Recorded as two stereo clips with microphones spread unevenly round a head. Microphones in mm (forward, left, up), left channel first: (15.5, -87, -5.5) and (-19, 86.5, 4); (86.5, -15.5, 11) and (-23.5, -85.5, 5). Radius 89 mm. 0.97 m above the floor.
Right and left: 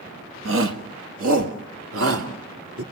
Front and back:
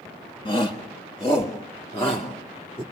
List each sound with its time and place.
0.5 s a shout: 95° left, 1.6 m; by 2.8 s 115° left, 3 m